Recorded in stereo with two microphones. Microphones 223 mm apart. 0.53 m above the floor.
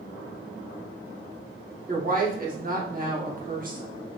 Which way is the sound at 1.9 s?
40° right (ahead or behind).